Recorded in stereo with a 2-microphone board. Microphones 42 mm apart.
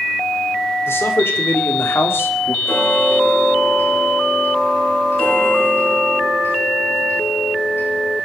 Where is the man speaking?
65° left (ahead or behind), 3 m.